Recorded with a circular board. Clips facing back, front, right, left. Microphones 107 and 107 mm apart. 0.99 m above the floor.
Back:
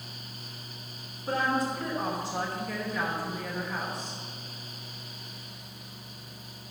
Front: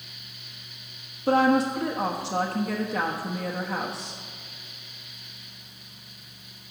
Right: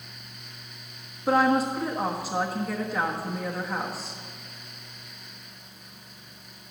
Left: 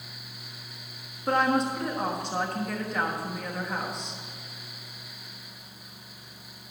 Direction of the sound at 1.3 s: 5° right.